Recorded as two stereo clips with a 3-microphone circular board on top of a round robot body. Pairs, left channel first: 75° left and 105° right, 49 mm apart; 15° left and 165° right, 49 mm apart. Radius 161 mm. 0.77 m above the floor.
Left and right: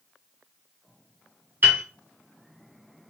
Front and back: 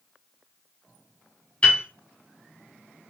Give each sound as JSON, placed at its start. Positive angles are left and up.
{"t": 1.6, "sound": "a piano", "azimuth_deg": -50, "distance_m": 1.2}